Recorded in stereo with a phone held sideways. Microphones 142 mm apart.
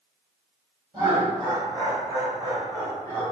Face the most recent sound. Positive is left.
turn(degrees=-30)  # may be behind; listen again after turning